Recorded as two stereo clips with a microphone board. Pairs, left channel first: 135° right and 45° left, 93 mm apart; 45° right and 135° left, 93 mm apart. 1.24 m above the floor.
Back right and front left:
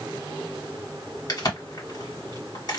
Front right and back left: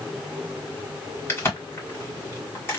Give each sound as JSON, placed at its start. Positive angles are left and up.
{"t": 1.3, "sound": "a crack", "azimuth_deg": -105, "distance_m": 1.7}